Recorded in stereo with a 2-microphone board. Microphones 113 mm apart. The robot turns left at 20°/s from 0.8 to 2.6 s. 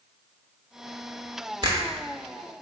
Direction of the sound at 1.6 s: 40° right (ahead or behind).